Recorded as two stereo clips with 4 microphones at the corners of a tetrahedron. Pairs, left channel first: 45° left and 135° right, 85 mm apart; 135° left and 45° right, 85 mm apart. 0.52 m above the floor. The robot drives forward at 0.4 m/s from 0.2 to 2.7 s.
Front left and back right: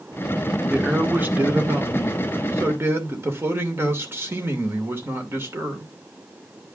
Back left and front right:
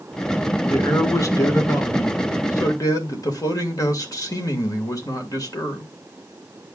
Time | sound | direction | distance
0.7 | a man speaking | 160° left | 1.5 m